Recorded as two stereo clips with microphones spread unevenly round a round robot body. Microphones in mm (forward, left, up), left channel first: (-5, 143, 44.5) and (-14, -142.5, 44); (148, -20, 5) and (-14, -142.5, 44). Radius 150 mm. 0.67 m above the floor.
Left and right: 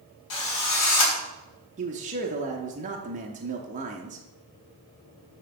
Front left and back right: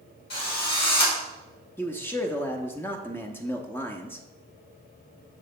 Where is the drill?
80° left, 2.0 m.